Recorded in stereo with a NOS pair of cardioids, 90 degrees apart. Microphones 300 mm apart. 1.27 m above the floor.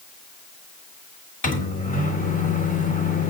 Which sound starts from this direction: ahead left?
A microwave, at 1.4 s.